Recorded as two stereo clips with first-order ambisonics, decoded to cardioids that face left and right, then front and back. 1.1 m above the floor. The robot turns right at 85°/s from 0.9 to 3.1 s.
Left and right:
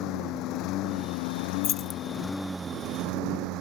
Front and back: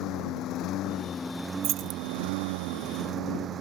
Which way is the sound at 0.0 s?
50° left.